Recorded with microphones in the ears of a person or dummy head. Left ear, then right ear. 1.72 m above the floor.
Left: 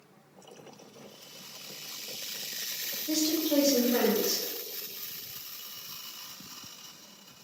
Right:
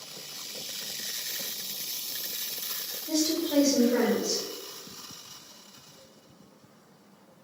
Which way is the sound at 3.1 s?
15° left (ahead or behind).